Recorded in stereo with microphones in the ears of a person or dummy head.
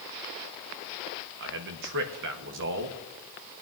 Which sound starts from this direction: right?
A man speaking, at 1.4 s.